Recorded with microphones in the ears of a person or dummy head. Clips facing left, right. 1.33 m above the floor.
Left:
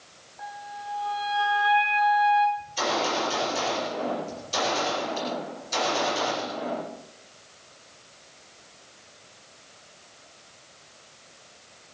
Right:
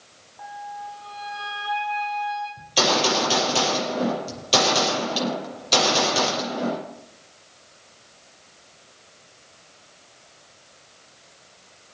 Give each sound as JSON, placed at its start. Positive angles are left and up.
{"t": 0.4, "sound": "a flute", "side_deg": 25, "distance_m": 5.0}
{"t": 2.6, "sound": "a gunshot", "side_deg": -80, "distance_m": 7.0}